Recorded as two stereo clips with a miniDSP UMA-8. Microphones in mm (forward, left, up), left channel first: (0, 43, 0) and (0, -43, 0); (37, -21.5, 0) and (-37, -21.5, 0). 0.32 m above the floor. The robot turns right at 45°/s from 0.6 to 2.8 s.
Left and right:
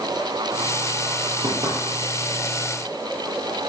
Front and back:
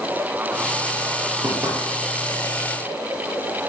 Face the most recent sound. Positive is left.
turn(degrees=-70)